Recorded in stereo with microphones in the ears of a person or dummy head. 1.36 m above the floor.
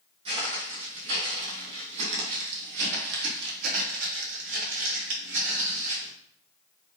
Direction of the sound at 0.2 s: 35° right (ahead or behind).